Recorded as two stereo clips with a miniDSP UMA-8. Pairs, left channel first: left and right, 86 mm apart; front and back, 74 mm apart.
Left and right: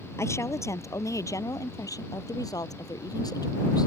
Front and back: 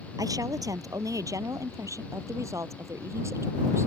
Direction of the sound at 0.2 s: 145° left.